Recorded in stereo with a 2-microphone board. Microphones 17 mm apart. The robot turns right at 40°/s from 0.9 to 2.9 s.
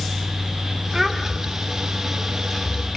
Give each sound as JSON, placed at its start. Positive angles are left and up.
{"t": 0.9, "sound": "a child speaking", "side_deg": -25, "distance_m": 2.0}